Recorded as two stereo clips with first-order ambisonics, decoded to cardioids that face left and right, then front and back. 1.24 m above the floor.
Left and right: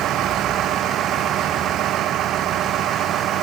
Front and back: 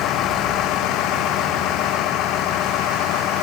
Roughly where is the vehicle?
Ahead right.